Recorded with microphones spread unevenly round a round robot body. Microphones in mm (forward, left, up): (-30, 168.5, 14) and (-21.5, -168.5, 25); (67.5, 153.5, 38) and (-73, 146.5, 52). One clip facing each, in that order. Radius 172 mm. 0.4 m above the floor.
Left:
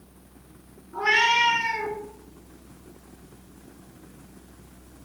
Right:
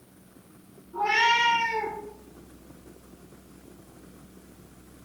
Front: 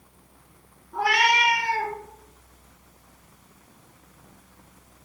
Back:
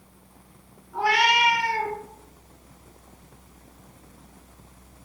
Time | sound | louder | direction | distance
0.9 | a cat meowing | left 1 dB, even | 45° left | 1.3 m